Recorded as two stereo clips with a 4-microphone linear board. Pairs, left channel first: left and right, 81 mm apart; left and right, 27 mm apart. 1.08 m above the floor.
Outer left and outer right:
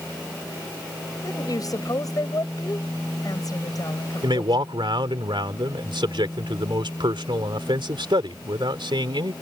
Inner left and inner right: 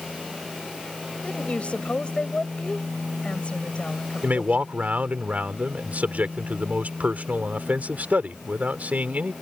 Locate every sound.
1.2 s a woman speaking: 50° left (ahead or behind)
4.2 s a man speaking: 80° right